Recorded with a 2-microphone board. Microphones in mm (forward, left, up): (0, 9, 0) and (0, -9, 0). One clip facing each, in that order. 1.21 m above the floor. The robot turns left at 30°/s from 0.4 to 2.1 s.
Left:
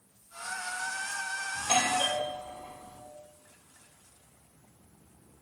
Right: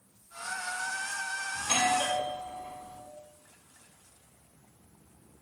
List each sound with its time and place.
1.6 s a doorbell: 60° left (ahead or behind), 3 m; by 3.0 s 70° left (ahead or behind), 3 m